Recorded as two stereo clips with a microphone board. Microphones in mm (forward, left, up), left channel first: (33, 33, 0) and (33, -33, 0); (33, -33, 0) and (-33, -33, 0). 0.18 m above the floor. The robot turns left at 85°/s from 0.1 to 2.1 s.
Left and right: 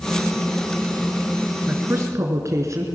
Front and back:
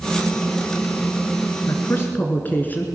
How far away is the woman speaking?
About 2.5 m.